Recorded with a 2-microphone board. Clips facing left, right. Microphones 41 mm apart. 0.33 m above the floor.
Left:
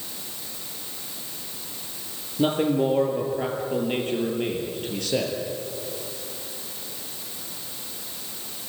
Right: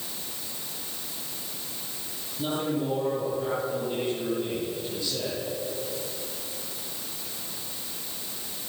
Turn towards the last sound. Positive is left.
turn(degrees=65)  # may be behind; listen again after turning